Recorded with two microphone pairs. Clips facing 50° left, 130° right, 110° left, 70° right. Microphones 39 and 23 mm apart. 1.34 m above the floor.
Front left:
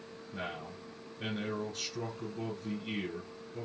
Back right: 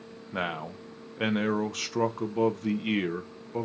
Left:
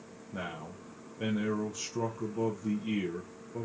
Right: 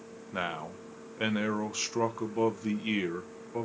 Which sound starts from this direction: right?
A man speaking, at 0.3 s.